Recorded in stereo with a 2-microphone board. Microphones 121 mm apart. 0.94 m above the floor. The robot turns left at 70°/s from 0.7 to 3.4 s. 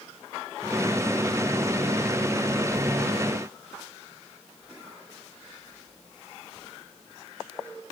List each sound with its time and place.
Only background noise.